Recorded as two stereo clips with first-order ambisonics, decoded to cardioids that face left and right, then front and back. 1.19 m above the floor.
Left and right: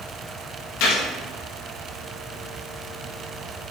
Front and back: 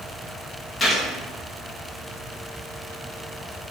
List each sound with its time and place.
0.8 s a gunshot: 75° left, 1.8 m